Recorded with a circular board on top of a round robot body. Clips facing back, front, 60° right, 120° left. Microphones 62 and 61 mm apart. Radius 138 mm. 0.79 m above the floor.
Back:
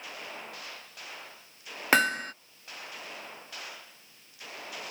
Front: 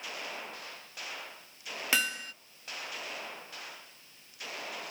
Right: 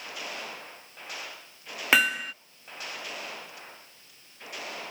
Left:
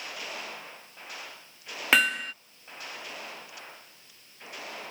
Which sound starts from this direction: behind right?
Hammering, at 1.9 s.